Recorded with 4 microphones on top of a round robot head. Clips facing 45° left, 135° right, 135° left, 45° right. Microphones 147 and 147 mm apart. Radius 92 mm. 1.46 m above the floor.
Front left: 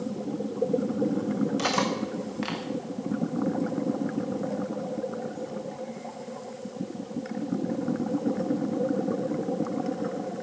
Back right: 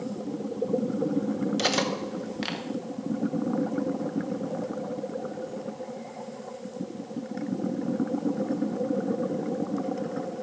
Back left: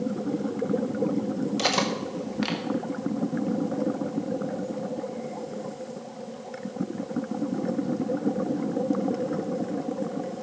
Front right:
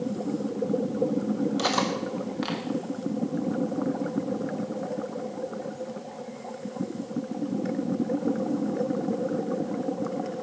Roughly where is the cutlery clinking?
Behind.